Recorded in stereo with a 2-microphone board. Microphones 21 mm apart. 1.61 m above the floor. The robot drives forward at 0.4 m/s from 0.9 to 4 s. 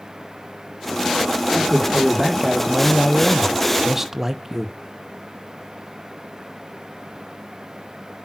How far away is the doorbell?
I don't hear a doorbell.